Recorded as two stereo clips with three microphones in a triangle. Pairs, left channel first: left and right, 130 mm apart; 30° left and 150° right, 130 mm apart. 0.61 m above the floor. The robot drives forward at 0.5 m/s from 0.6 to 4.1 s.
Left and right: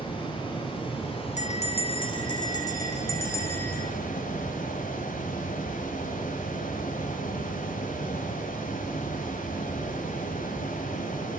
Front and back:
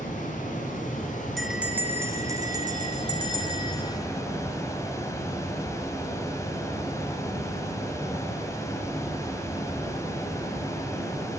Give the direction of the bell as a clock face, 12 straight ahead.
8 o'clock.